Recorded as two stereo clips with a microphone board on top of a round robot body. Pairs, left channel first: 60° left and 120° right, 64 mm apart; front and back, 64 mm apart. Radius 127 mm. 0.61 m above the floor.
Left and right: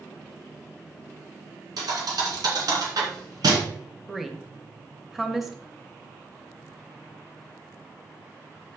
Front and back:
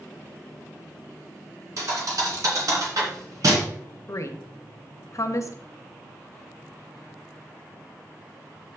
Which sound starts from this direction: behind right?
A thud, at 1.8 s.